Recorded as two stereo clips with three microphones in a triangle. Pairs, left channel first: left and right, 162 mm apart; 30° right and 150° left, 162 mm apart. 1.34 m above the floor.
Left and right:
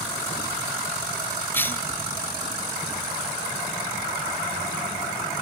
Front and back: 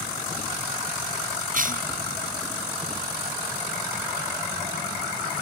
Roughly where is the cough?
Behind.